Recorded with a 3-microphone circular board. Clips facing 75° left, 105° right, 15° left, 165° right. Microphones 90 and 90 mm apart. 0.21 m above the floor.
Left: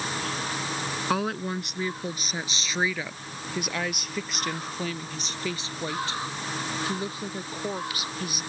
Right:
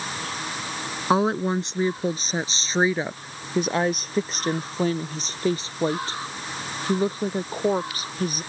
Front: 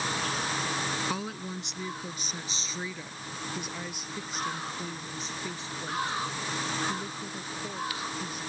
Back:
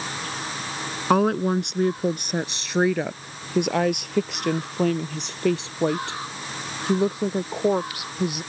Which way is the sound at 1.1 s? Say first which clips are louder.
Right 8 dB, back 15 dB; 165° right.